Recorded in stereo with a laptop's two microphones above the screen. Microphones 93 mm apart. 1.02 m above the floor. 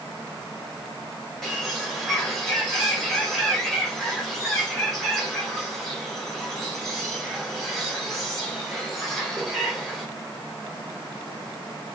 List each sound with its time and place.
1.4 s a bird: 5° left (ahead or behind), 4 m